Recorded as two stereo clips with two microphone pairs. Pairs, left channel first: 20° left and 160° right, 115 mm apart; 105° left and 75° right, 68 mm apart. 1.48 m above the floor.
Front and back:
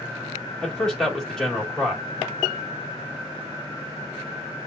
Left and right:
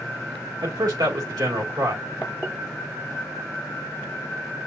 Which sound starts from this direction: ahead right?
A man speaking, at 0.6 s.